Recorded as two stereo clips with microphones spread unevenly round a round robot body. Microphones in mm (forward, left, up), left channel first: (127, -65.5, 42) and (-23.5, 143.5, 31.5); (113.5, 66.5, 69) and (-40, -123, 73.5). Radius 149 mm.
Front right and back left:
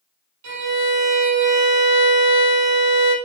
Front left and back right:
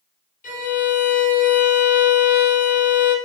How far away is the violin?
About 3.5 m.